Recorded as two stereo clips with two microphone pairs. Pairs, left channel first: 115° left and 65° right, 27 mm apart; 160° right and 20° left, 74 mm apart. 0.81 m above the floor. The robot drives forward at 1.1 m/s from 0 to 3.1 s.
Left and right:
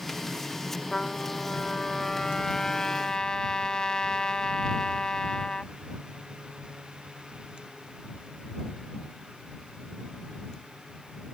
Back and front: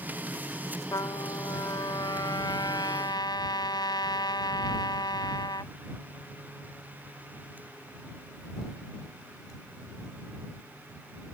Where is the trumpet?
175° left; by 5.7 s straight behind.